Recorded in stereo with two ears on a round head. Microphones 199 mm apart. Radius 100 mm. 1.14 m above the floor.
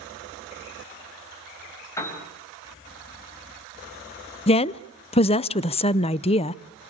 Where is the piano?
15° left (ahead or behind), 5.5 m.